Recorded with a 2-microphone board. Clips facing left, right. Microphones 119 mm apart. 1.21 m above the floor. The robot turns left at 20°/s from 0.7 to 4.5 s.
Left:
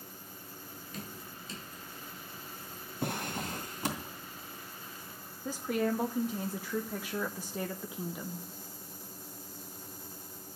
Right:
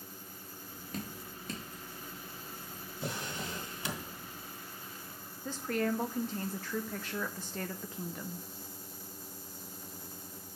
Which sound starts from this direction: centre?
A woman speaking, at 5.5 s.